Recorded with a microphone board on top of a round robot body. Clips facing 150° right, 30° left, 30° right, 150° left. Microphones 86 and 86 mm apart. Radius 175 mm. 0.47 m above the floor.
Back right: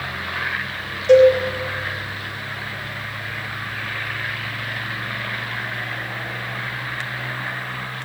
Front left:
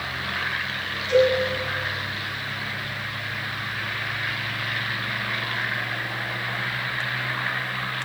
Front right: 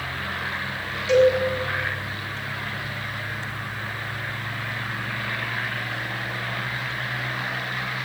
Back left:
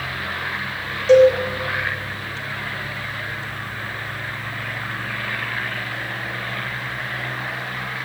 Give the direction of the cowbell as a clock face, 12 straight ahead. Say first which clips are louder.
Back right 8 dB, back left 6 dB; 5 o'clock.